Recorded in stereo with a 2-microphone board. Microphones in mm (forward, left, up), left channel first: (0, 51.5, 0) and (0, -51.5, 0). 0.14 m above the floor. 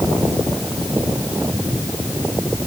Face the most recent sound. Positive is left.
No sound to turn to.